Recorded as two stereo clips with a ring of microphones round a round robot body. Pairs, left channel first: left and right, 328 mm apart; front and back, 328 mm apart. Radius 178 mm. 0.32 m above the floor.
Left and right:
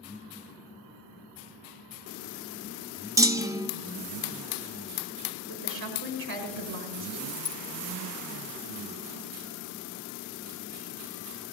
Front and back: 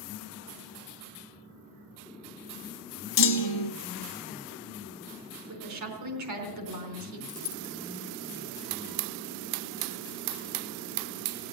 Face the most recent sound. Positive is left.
turn(degrees=40)